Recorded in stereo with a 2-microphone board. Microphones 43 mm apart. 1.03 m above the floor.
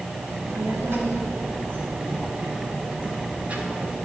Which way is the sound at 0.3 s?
70° right (ahead or behind).